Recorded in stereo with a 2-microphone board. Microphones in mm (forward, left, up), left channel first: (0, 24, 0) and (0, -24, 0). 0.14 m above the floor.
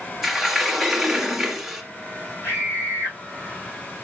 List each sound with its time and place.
0.2 s a sliding door: 5° right (ahead or behind), 1.7 m
2.4 s a scream: 55° left (ahead or behind), 7 m